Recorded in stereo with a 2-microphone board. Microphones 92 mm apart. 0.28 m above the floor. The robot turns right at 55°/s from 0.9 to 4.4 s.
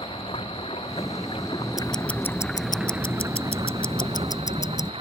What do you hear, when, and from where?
0.0 s running water: 85° left; by 5.0 s 85° right
1.8 s ticking: 5° right; by 4.9 s 140° left